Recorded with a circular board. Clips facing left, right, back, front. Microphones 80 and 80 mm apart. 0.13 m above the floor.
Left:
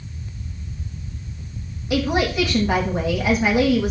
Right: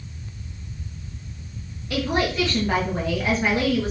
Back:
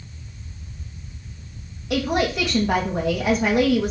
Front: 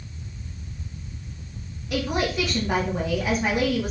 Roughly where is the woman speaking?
Behind.